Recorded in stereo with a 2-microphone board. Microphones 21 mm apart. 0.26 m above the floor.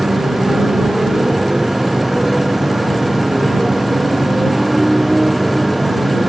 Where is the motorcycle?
20° right (ahead or behind); by 6.3 s 10° right (ahead or behind).